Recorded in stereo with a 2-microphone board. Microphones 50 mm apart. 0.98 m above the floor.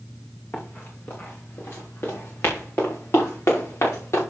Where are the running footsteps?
35° left (ahead or behind), 4 m; by 4.2 s 65° left (ahead or behind), 6 m.